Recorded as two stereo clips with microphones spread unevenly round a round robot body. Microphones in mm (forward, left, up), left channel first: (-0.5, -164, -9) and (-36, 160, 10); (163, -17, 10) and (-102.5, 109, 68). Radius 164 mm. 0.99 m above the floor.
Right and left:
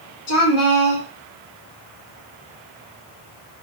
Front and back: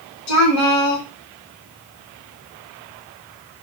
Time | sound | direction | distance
0.3 | a woman speaking | 45° right | 1.0 m